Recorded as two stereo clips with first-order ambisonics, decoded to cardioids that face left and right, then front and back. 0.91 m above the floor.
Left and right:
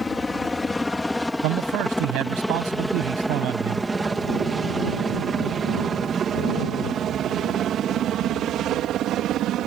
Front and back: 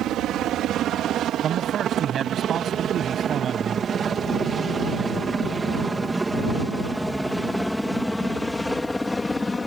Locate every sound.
0.0 s a helicopter: 160° left; by 9.7 s 75° right
1.4 s a man speaking: 120° right